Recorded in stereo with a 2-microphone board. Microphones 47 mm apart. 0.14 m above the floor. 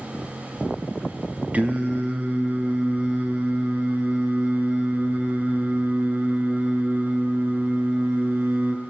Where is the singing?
35° right (ahead or behind), 1.7 m.